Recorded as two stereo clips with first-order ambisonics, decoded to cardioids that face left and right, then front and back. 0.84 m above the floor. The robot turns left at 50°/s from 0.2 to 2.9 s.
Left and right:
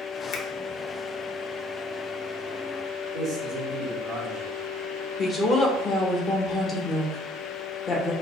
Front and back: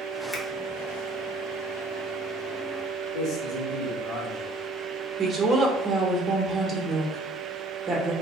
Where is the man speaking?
35° right, 1.4 m.